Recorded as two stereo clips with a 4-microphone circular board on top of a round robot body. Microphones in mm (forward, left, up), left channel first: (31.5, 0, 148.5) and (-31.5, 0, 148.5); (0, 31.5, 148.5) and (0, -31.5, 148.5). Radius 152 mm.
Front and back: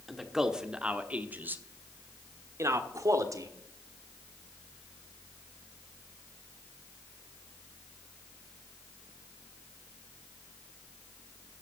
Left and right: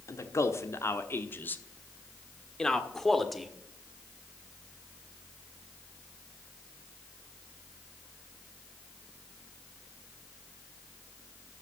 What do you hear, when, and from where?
0.1 s a man speaking: 95° left, 1.5 m; by 3.5 s straight behind, 1.8 m